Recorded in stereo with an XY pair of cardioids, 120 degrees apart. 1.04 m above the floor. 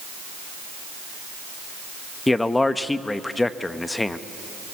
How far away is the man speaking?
About 0.9 m.